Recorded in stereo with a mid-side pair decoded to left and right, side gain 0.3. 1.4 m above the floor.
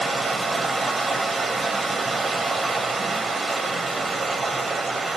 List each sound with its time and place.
0.0 s running water: 45° right, 1.2 m